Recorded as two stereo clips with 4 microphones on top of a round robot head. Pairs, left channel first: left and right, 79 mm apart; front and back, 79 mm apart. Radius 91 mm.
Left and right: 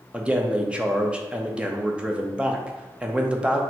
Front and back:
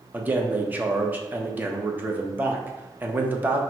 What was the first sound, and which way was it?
A man speaking, 150° right.